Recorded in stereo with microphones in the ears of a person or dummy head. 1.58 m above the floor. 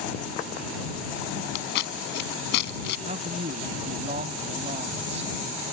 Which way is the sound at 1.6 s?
60° left (ahead or behind).